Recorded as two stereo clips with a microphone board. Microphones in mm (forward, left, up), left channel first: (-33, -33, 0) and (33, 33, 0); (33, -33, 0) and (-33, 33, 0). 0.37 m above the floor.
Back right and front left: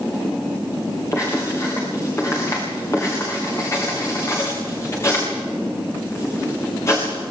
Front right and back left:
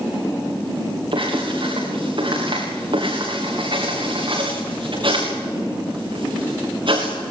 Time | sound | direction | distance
1.1 | writing | 165° left | 7 m